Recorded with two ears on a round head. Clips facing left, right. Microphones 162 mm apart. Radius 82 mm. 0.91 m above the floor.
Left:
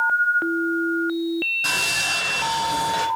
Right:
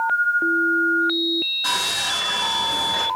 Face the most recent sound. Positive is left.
turn(degrees=35)  # may be behind; listen again after turning